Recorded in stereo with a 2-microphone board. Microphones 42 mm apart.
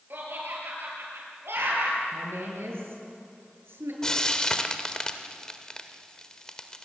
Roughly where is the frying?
Centre.